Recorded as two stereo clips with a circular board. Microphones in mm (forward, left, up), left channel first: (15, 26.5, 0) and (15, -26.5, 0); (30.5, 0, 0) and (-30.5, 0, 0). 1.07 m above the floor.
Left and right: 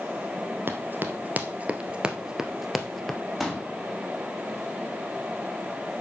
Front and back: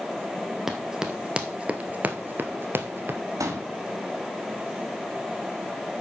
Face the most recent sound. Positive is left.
turn(degrees=-175)